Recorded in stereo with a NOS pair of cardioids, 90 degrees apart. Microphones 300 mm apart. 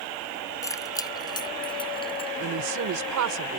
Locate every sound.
0.6 s keys jangling: 10° left; by 2.3 s 20° left
2.4 s a woman speaking: 70° right